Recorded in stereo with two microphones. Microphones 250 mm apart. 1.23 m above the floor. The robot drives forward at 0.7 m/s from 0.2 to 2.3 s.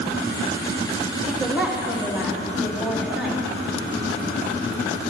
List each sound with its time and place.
1.3 s a woman speaking: 5° right (ahead or behind), 1.6 m; by 3.4 s centre (ahead or behind), 2.5 m